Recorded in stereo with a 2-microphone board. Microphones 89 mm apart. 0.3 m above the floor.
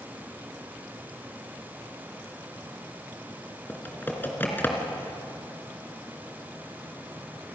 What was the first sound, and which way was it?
Typing on a keyboard, 20° left (ahead or behind).